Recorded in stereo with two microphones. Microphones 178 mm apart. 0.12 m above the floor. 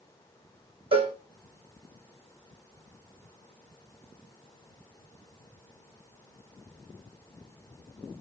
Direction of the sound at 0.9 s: 30° right (ahead or behind).